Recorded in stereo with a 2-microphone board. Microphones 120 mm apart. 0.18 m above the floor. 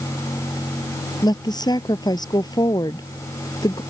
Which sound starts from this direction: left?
A woman speaking, at 1.2 s.